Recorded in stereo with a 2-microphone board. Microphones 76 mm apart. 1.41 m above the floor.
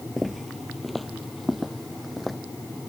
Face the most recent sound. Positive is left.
turn(degrees=0)  # may be behind; listen again after turning